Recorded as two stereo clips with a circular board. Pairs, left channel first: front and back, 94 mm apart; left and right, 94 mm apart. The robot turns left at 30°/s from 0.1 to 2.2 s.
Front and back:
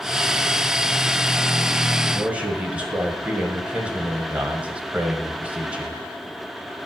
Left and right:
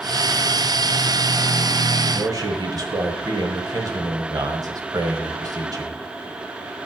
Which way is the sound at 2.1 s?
105° right.